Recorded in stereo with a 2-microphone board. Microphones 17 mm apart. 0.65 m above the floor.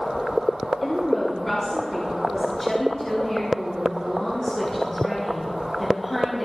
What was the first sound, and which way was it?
A woman speaking, 10° left (ahead or behind).